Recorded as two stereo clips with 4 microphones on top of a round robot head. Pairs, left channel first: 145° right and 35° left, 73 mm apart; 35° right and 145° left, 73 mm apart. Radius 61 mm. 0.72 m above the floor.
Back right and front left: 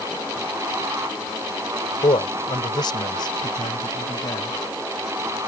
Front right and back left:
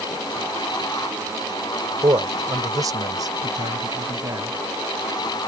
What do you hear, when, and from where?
2.0 s a man speaking: 170° right; by 4.6 s straight behind